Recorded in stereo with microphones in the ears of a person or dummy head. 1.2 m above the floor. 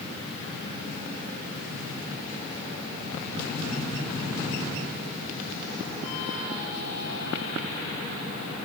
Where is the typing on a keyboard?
No typing on a keyboard in this recording.